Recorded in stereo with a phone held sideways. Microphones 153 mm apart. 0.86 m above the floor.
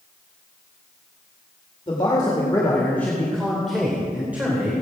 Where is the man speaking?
35° left (ahead or behind), 2.5 m; by 4.8 s 20° right (ahead or behind), 3 m.